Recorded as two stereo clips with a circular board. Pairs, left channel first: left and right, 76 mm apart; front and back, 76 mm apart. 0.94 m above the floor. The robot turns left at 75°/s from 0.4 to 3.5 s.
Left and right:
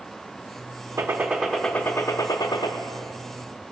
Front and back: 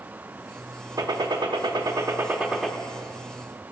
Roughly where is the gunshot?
Behind right.